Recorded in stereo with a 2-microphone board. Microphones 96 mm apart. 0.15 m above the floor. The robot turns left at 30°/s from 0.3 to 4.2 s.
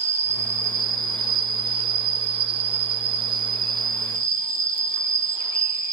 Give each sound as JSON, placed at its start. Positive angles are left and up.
{"t": 0.0, "sound": "an insect", "azimuth_deg": -25, "distance_m": 0.7}